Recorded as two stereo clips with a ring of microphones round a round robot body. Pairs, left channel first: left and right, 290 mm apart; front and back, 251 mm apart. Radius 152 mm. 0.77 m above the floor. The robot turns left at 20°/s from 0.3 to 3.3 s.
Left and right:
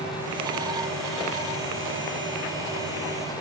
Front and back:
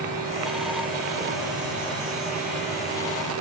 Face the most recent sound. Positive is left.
No sound to turn to.